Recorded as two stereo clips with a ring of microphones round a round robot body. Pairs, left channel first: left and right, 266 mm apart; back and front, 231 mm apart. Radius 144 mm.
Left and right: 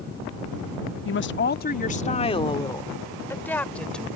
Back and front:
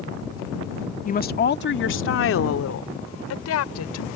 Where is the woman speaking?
130° left; by 4.1 s straight behind.